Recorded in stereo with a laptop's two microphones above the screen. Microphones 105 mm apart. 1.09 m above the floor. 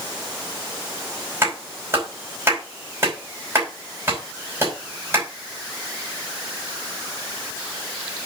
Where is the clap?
30° right (ahead or behind), 5 m.